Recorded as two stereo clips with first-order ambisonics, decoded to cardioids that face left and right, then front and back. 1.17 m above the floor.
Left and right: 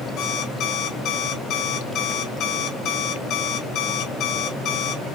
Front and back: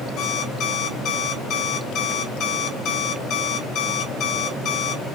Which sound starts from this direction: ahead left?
An alarm clock, at 0.2 s.